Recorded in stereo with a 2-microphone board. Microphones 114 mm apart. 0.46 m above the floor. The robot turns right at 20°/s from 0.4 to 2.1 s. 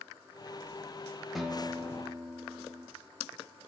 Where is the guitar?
Centre (ahead or behind), 0.6 m; by 2.9 s 10° right (ahead or behind), 0.6 m.